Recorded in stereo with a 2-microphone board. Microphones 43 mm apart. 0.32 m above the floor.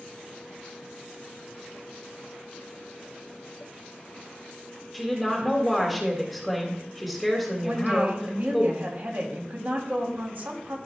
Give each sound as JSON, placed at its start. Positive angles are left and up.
{"t": 4.9, "sound": "a woman speaking", "side_deg": 0, "distance_m": 1.8}
{"t": 7.6, "sound": "a woman speaking", "side_deg": -55, "distance_m": 2.0}